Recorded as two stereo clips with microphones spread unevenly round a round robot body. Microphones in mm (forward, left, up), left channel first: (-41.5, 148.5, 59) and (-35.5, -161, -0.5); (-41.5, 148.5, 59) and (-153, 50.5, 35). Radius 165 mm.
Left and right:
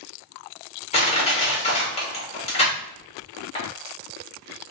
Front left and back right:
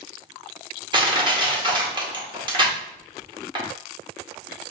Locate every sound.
0.9 s crushing: 165° left, 1.7 m